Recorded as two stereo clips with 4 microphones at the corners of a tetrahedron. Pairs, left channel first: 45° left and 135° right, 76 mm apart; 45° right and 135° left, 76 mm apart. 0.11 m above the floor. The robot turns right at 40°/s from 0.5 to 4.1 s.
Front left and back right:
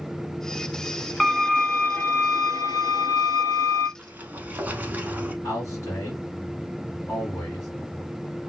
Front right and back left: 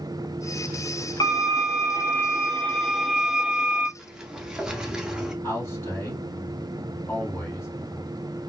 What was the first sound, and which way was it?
A violin, 35° right.